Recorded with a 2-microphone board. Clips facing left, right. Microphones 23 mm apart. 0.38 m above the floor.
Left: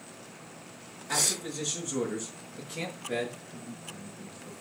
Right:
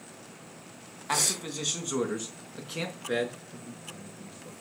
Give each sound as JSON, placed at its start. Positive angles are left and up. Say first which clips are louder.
{"t": 1.1, "sound": "a man speaking", "louder": "right 1 dB", "side_deg": -70, "distance_m": 3.5}
{"t": 3.5, "sound": "a man speaking", "louder": "left 1 dB", "side_deg": -65, "distance_m": 7.5}